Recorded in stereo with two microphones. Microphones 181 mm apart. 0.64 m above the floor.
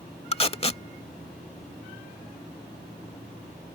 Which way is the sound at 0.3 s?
35° left (ahead or behind).